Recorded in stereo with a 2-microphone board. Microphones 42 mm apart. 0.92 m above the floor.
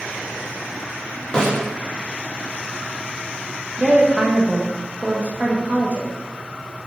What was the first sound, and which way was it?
A snare drum, 25° left (ahead or behind).